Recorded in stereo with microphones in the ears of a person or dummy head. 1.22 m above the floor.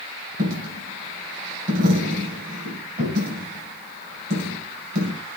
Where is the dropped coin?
55° right (ahead or behind), 4 m.